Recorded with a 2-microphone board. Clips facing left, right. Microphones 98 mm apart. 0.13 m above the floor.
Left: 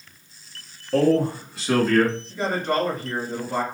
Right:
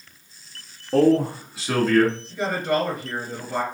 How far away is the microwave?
No microwave in this recording.